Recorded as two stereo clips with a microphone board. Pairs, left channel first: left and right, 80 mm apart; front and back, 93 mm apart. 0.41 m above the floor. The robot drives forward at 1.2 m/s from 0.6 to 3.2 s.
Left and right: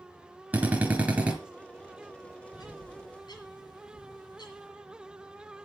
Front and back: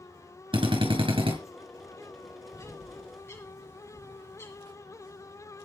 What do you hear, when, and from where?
0.5 s a drill: 160° right, 3.5 m; by 1.4 s 165° right, 4.5 m
2.5 s a bird: 55° left, 6 m; by 4.7 s 65° left, 5.5 m